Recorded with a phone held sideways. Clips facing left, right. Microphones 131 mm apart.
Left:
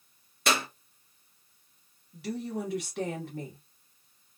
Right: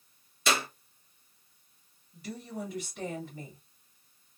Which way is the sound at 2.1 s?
90° left.